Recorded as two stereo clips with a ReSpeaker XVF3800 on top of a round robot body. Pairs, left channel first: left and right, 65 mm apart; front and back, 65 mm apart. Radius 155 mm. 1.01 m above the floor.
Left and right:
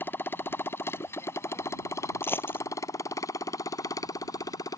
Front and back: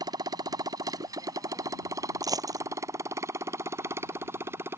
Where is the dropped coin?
150° left.